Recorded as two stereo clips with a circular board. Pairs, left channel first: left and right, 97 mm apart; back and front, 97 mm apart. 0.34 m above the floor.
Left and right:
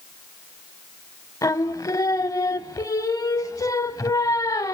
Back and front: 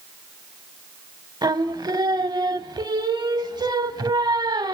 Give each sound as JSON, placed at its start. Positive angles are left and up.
{"t": 1.4, "sound": "singing", "azimuth_deg": 40, "distance_m": 0.7}